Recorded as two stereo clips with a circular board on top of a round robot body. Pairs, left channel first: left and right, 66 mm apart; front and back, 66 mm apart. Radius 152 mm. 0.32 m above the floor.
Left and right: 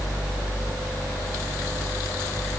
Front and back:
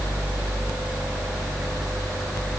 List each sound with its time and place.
Only background noise.